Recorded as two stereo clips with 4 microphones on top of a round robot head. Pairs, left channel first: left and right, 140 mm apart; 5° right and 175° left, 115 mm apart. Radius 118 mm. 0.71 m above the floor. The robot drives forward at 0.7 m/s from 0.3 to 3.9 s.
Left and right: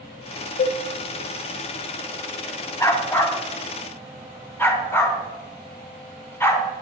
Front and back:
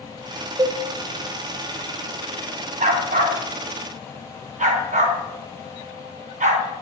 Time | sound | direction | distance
0.6 | a cowbell | 115° left | 0.9 m
2.8 | a dog barking | 160° left | 2.5 m